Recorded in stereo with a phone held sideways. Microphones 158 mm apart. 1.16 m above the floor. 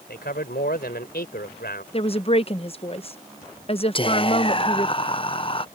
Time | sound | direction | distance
0.1 | a man speaking | 85° left | ?
1.9 | a woman speaking | 40° left (ahead or behind) | ?
4.0 | whispering | 35° left (ahead or behind) | ?